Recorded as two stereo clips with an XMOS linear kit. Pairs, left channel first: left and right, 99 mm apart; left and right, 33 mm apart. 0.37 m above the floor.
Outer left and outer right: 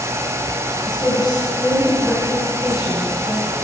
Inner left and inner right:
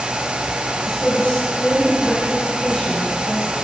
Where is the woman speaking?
45° left (ahead or behind), 3 m.